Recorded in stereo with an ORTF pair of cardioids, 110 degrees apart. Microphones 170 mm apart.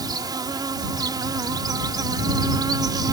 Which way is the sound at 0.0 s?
25° right.